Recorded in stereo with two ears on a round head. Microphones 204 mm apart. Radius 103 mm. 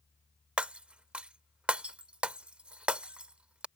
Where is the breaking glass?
5° right (ahead or behind).